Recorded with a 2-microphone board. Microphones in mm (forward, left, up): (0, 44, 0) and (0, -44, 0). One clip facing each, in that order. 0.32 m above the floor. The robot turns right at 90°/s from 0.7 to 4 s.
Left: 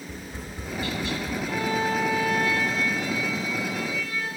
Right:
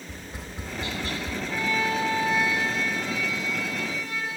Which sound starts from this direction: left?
A violin, at 1.5 s.